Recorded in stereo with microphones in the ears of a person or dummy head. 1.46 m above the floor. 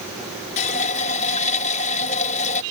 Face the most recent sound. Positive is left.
turn(degrees=40)  # may be behind; listen again after turning